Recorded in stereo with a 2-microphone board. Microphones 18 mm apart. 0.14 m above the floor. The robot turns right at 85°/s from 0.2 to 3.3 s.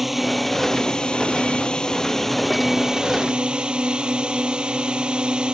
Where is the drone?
15° right; by 5.5 s 110° right.